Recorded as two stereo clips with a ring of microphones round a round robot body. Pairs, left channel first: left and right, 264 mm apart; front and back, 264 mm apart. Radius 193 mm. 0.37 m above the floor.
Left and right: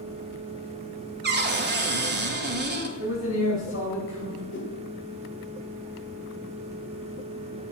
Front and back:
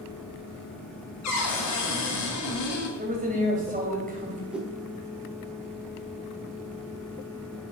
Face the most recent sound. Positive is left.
turn(degrees=95)